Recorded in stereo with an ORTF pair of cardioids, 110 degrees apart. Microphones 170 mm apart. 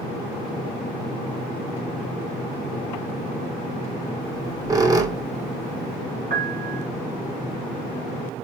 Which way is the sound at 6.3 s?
60° right.